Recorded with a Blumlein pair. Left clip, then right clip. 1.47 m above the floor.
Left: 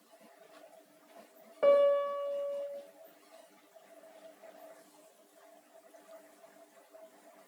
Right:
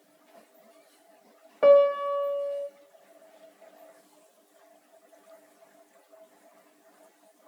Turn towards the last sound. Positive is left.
turn(degrees=-20)